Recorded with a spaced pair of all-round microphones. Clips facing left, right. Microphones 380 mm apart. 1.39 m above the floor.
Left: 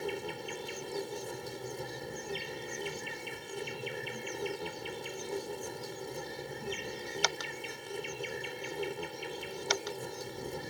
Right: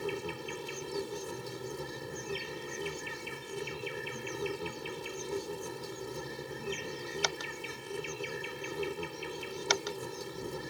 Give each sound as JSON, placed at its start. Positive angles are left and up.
{"t": 0.0, "sound": "an insect", "side_deg": -15}